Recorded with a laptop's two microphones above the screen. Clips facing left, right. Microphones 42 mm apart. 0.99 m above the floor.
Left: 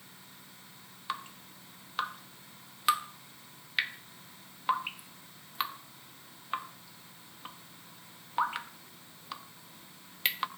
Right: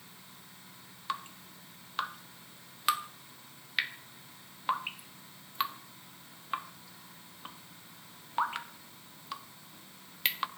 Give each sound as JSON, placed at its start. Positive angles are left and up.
{"t": 1.1, "sound": "dripping", "side_deg": 5, "distance_m": 0.5}